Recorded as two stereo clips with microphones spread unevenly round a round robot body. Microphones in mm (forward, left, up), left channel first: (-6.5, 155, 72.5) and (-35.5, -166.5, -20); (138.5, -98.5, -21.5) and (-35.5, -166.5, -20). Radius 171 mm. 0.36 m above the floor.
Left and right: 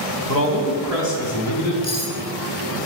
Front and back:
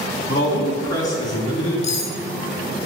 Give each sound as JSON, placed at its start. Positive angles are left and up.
{"t": 0.3, "sound": "a man speaking", "azimuth_deg": 45, "distance_m": 1.6}
{"t": 1.8, "sound": "cutlery clinking", "azimuth_deg": 5, "distance_m": 1.9}